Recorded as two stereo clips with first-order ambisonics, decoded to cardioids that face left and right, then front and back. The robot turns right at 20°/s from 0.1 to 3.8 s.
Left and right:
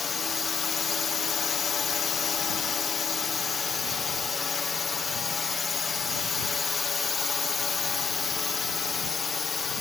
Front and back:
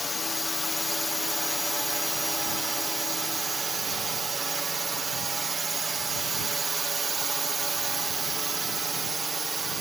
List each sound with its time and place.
0.0 s a drone: 55° left; by 9.8 s 130° left